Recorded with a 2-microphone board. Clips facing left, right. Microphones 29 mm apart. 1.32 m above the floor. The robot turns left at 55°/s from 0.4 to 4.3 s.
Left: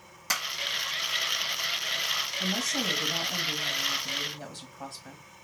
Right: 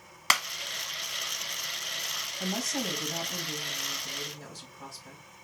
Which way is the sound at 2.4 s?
155° right.